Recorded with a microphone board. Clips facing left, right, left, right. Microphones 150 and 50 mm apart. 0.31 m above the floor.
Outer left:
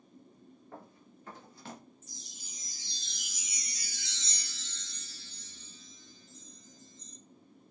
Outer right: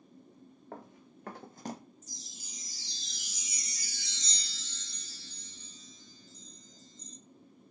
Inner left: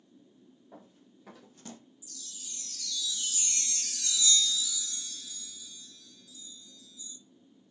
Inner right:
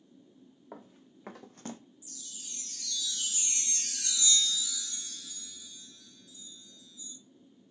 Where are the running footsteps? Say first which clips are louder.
Outer right 4 dB, inner right 4 dB; 75° right (ahead or behind), 1.4 m; by 1.8 s 25° right (ahead or behind), 0.5 m.